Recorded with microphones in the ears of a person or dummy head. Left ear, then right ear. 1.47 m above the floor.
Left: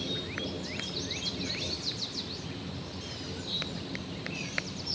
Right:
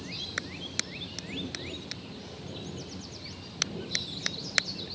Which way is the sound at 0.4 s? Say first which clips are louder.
Right 1 dB; 80° right.